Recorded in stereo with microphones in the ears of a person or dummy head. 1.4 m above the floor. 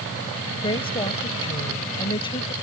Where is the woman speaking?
25° left (ahead or behind).